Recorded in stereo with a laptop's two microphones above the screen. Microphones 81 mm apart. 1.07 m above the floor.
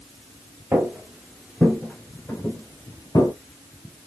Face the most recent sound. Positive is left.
turn(degrees=45)  # may be behind; listen again after turning